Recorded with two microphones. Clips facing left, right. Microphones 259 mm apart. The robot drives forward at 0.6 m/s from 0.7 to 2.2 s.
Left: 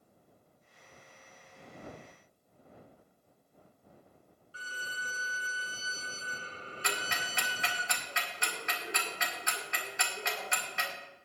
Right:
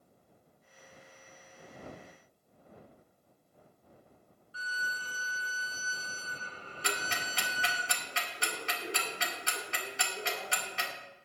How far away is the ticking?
About 2 m.